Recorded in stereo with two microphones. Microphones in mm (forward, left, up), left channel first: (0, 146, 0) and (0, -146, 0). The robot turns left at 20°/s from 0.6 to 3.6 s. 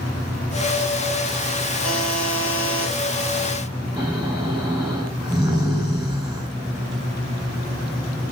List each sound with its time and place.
1.8 s a buzzer: 65° left (ahead or behind), 4 m; by 2.9 s 70° left (ahead or behind), 4 m
4.0 s snoring: centre (ahead or behind), 7 m